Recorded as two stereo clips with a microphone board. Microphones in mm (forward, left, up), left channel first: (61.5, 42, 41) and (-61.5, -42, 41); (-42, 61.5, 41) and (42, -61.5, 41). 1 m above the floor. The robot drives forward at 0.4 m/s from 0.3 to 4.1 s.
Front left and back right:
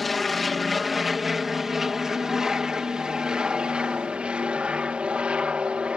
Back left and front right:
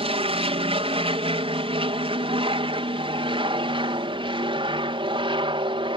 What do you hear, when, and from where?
0.0 s an aircraft: 55° right; by 6.0 s 70° right